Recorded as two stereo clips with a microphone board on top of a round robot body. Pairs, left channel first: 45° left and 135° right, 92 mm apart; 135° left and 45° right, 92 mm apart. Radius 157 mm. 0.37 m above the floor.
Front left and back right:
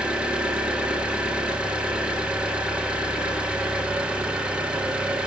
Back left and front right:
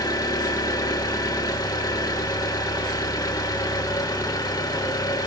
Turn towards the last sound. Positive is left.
turn(degrees=150)